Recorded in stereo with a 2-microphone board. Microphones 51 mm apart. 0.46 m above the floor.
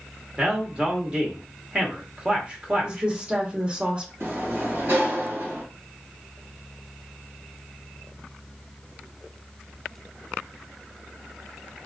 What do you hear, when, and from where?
0.4 s a man speaking: 25° right (ahead or behind), 1.0 m
2.8 s a woman speaking: 25° right (ahead or behind), 1.1 m
4.2 s a sliding door: 60° right (ahead or behind), 2 m